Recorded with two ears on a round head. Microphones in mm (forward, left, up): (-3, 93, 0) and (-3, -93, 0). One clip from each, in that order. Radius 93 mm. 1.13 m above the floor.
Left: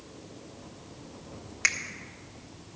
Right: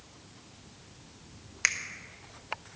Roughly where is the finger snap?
Centre.